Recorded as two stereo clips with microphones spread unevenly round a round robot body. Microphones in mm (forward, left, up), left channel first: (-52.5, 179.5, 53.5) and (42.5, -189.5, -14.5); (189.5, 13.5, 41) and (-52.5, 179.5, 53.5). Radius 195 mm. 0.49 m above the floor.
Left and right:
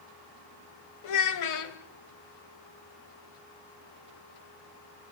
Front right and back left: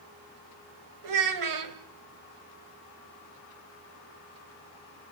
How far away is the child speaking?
About 2 m.